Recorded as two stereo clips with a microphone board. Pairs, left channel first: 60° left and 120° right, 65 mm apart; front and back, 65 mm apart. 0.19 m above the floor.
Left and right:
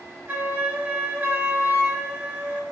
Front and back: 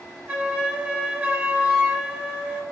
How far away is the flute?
About 0.8 m.